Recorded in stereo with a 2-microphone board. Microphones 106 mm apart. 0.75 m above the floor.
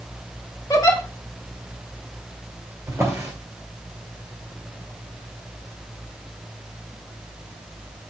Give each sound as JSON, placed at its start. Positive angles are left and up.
{"t": 0.7, "sound": "a giggle", "side_deg": 30, "distance_m": 1.4}
{"t": 2.9, "sound": "a drawer", "side_deg": -25, "distance_m": 2.0}